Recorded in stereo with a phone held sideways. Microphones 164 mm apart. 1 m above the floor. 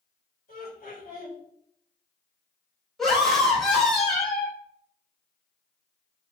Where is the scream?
5° left (ahead or behind), 1.9 m.